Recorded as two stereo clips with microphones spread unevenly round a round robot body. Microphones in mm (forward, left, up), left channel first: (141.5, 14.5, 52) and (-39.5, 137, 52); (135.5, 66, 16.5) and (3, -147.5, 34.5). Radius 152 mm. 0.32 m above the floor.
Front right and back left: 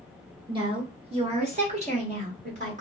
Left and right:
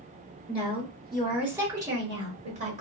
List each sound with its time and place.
0.5 s a woman speaking: 110° left, 1.3 m; by 2.8 s 175° right, 1.6 m